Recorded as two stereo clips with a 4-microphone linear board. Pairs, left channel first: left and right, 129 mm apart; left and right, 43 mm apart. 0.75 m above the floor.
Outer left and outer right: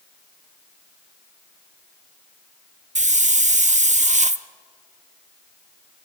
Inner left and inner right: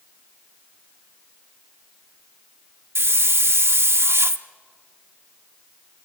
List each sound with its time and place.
3.0 s a hiss: 65° right (ahead or behind), 0.6 m